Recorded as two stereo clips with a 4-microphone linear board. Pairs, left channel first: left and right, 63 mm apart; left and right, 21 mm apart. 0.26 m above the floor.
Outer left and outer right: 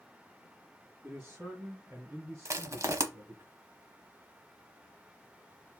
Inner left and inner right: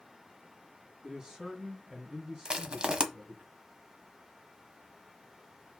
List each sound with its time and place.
1.0 s a man speaking: 30° right (ahead or behind), 3 m; by 3.5 s 45° right (ahead or behind), 1.8 m
2.5 s crushing: 50° right (ahead or behind), 0.8 m